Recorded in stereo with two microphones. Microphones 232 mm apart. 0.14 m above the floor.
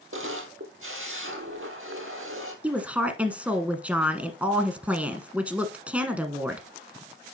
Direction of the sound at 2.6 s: 5° right (ahead or behind).